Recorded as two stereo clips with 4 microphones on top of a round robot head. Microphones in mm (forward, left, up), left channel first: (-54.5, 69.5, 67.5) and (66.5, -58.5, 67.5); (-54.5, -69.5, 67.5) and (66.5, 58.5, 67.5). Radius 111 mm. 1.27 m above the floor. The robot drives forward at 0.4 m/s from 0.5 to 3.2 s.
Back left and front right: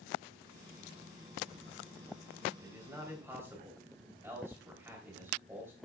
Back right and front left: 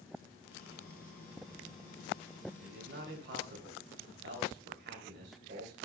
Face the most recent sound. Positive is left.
turn(degrees=30)